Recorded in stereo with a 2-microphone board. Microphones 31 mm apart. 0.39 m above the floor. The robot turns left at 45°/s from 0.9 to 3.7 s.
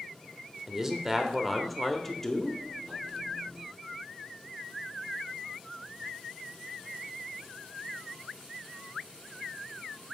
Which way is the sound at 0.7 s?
15° right (ahead or behind).